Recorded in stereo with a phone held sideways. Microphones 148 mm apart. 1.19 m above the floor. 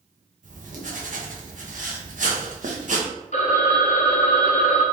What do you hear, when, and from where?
0.4 s writing: 60° right (ahead or behind), 0.9 m
3.3 s a phone ringing: 50° left (ahead or behind), 0.7 m